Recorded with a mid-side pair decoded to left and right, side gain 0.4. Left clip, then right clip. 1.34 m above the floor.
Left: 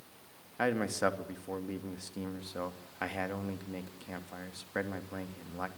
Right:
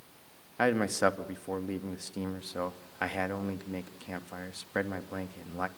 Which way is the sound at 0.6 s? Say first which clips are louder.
Right 4 dB; 30° right.